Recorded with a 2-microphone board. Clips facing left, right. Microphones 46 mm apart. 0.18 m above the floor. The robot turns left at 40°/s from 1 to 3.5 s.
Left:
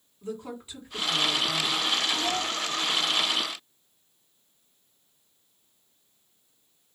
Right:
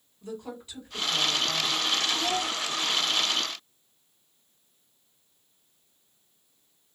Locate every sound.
0.2 s a woman speaking: 150° left, 1.8 m; by 1.8 s 120° left, 1.8 m
2.1 s a child speaking: 20° right (ahead or behind), 0.6 m; by 2.5 s 25° right (ahead or behind), 0.6 m